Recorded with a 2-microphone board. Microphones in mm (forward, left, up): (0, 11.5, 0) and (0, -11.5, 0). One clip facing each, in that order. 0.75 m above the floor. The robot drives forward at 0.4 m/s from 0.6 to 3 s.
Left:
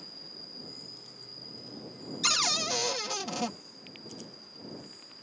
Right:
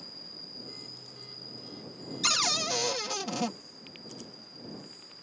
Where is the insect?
10° right (ahead or behind); by 5.2 s 5° right (ahead or behind).